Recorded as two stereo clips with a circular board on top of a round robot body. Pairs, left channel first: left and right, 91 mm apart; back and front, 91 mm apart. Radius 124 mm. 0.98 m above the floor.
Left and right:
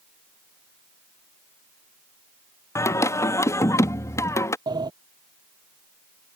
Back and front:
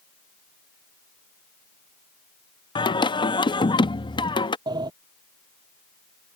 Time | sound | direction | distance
2.8 | singing | 150° left | ?
4.7 | a sliding door | 45° right | ?